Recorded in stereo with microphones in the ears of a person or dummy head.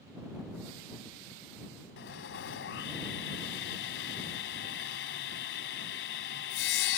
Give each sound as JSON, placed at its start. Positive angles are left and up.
{"t": 2.0, "sound": "sawing", "side_deg": 60}